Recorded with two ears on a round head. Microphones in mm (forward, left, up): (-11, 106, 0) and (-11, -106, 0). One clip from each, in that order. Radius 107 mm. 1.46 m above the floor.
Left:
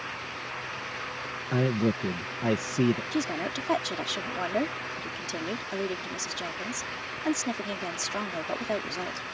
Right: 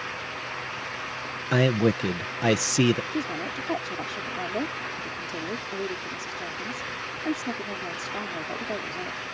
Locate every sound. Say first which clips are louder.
1.5 s a man speaking: right 5 dB; 75° right (ahead or behind)
3.1 s a woman speaking: even; 90° left